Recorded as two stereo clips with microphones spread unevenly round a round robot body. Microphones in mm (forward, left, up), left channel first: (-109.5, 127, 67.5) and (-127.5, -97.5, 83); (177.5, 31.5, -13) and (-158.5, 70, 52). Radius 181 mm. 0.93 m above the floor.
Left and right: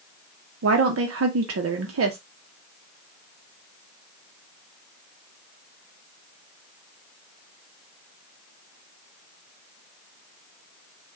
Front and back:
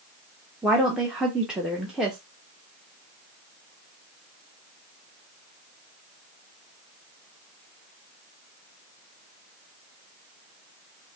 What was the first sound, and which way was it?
A woman speaking, 90° right.